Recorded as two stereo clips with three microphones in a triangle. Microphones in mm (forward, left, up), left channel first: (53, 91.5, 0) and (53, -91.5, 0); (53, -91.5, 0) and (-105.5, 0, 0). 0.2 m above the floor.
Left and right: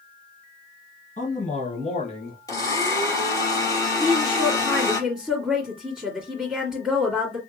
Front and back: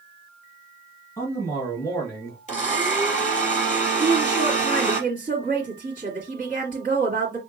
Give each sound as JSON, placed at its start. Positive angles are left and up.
{"t": 1.2, "sound": "a man speaking", "azimuth_deg": 45, "distance_m": 3.0}
{"t": 2.5, "sound": "a blender", "azimuth_deg": 20, "distance_m": 3.5}
{"t": 4.0, "sound": "a woman speaking", "azimuth_deg": -175, "distance_m": 2.0}